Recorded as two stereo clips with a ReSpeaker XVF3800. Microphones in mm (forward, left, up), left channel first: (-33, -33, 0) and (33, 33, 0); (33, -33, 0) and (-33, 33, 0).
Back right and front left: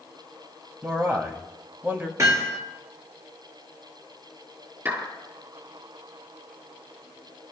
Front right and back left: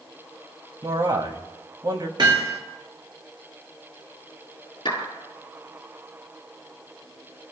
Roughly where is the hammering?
Left.